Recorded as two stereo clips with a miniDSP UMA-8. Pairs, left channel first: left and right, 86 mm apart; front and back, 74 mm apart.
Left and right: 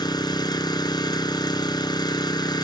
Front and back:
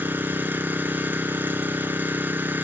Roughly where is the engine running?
Behind left.